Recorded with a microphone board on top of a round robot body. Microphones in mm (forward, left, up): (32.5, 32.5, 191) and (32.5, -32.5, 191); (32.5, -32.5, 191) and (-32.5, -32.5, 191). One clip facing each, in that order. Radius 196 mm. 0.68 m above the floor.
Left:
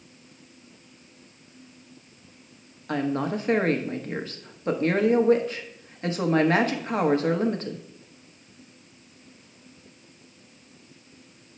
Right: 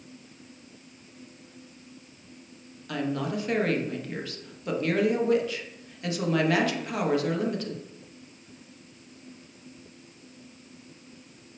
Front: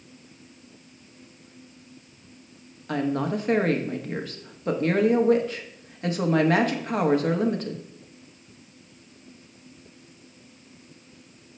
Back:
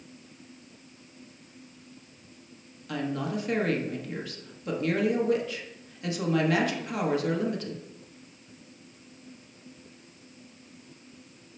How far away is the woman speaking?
About 1.2 m.